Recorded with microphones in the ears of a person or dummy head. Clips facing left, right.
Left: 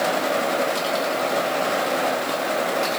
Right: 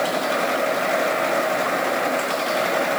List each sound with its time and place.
Only background noise.